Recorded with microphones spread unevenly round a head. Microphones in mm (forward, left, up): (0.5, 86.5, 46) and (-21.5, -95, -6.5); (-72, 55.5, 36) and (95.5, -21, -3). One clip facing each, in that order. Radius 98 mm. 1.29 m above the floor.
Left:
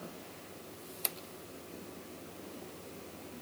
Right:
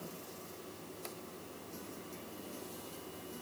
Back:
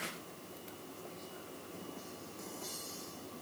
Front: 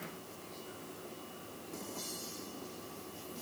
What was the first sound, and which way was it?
Only background noise.